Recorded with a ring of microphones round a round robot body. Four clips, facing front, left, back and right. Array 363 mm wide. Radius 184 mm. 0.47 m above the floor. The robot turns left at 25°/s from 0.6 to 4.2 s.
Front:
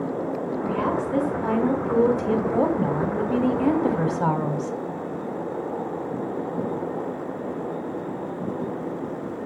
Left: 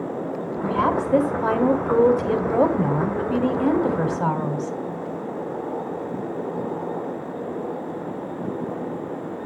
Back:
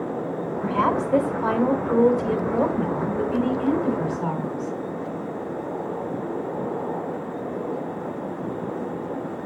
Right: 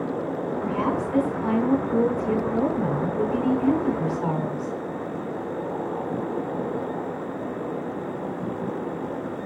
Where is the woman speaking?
135° left, 3 m; by 4.8 s 45° left, 3 m.